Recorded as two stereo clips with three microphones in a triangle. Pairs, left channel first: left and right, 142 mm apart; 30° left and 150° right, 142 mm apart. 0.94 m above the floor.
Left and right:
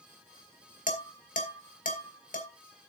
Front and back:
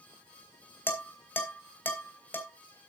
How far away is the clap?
I don't hear a clap.